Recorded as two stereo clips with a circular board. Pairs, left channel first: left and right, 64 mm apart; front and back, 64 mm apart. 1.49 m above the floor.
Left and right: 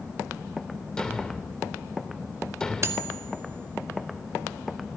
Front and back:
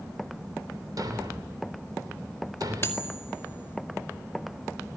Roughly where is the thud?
Behind.